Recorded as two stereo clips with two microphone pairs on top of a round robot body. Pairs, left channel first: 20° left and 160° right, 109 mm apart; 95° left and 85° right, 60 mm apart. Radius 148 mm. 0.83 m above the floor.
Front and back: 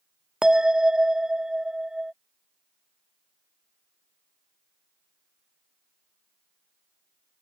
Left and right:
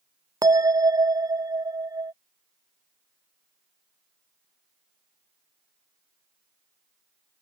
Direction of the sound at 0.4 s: 80° right.